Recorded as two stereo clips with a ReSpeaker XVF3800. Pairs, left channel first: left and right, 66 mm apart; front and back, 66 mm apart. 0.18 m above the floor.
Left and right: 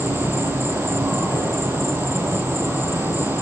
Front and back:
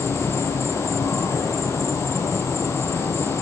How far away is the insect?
About 4.5 m.